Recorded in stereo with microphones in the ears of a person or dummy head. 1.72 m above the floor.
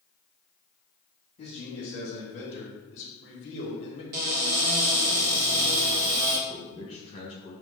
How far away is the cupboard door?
About 1.2 m.